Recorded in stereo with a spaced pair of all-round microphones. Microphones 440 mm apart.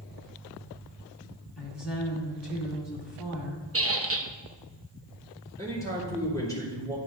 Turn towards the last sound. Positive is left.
turn(degrees=10)  # may be behind; listen again after turning